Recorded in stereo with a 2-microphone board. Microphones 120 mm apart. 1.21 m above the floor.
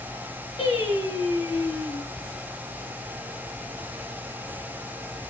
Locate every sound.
0.6 s singing: 40° left (ahead or behind), 3.5 m